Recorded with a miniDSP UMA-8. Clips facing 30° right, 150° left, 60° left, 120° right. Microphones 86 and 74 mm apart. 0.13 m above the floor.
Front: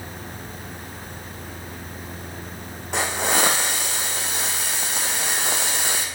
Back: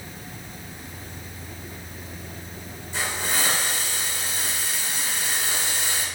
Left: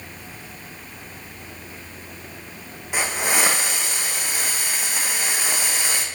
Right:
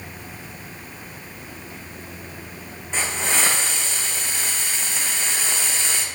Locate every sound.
2.9 s a hiss: 20° right, 2.0 m